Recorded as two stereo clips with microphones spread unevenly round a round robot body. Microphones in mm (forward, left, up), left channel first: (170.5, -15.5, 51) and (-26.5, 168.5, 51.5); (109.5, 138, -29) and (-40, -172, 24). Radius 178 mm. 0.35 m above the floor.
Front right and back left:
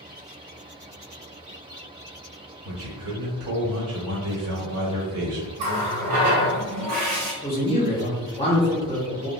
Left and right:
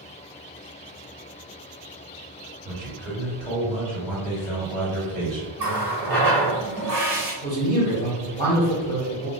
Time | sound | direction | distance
2.6 | a man speaking | 145° left | 1.4 m
5.6 | a running tap | 155° left | 1.2 m
7.4 | a man speaking | 10° left | 1.7 m